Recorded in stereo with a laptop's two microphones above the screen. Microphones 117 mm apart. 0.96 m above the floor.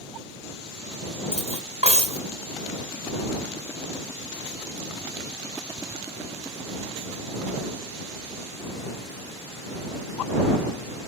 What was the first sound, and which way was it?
Cutlery clinking, 65° right (ahead or behind).